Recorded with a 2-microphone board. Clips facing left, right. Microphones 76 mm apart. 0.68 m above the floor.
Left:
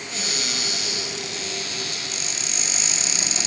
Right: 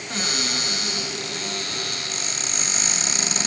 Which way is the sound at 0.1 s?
50° right (ahead or behind).